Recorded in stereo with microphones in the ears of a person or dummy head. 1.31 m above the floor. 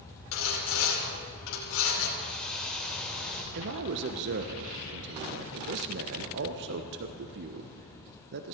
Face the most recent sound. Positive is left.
turn(degrees=-60)  # may be behind; listen again after turning